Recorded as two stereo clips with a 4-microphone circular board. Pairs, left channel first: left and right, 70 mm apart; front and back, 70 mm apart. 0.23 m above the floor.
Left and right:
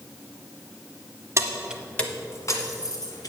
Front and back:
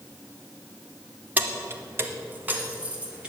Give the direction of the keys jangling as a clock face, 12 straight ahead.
4 o'clock.